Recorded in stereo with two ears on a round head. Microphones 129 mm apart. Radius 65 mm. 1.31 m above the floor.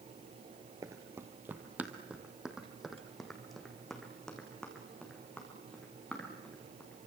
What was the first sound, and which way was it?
Running footsteps, 20° right (ahead or behind).